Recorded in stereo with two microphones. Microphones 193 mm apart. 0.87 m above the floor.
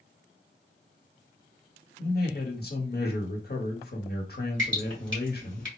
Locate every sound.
2.0 s a man speaking: 50° left (ahead or behind), 1.2 m
4.6 s dripping: 70° right (ahead or behind), 1.9 m